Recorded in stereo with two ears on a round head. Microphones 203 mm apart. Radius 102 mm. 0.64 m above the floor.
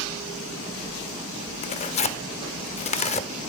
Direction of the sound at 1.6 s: 30° left (ahead or behind).